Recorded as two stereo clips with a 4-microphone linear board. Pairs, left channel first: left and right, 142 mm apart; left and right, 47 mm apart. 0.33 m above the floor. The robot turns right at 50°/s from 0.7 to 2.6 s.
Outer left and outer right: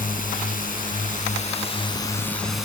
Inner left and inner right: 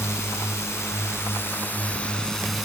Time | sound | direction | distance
0.0 | a drone | 85° left | ?